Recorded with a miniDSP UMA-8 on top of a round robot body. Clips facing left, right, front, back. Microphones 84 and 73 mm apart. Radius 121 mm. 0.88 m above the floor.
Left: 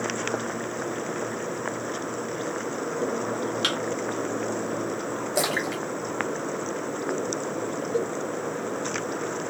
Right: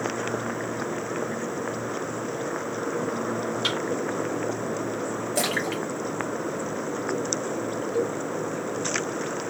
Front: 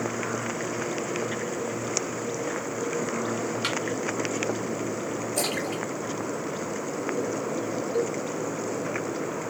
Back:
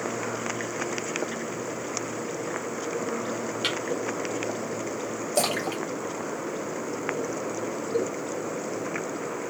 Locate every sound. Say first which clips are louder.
3.6 s a thud: even, back 2 dB; 75° left, 1.6 m
5.3 s a splash: left 1 dB, back 5 dB; 165° left, 0.8 m
7.9 s a cowbell: right 1 dB, even; 125° left, 3.5 m